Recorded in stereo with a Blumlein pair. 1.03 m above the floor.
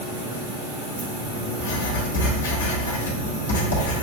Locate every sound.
0.0 s a machine running: 70° right, 1.9 m
1.6 s writing: 65° left, 1.2 m